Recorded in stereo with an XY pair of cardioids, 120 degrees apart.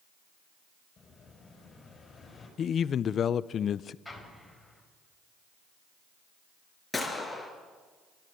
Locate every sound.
1.0 s an explosion: 35° left, 6 m
2.6 s a man speaking: 45° left, 0.6 m
4.0 s an explosion: 5° left, 4.5 m
6.9 s a gunshot: 15° left, 4.5 m